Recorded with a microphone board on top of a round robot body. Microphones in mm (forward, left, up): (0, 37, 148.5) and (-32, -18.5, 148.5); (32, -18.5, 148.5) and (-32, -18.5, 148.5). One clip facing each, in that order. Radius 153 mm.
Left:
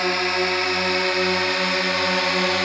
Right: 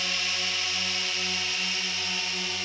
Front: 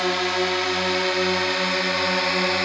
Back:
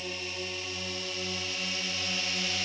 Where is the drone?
15° left; by 2.6 s 30° left.